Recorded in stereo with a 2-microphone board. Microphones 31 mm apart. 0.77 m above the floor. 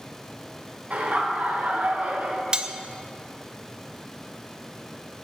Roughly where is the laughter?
Right.